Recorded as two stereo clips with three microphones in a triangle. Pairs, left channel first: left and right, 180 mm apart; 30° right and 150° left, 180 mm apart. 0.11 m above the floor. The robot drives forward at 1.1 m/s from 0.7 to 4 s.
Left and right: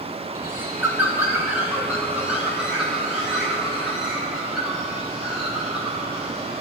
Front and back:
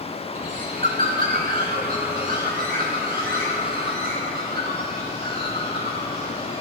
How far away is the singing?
No singing in this recording.